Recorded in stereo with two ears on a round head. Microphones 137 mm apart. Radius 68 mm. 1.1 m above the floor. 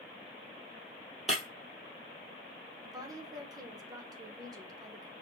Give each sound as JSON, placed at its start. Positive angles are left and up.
{"t": 1.3, "sound": "breaking glass", "side_deg": 0, "distance_m": 1.8}
{"t": 2.8, "sound": "a woman speaking", "side_deg": -25, "distance_m": 0.8}